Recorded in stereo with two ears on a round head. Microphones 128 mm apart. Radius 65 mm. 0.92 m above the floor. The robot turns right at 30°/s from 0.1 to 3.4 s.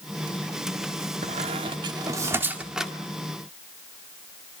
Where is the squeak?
50° right (ahead or behind), 1.7 m; by 2.9 s centre (ahead or behind), 1.7 m.